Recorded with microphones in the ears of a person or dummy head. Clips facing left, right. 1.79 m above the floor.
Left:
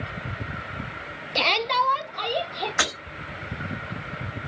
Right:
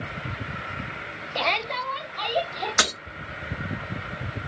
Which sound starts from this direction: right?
Breaking glass, at 2.8 s.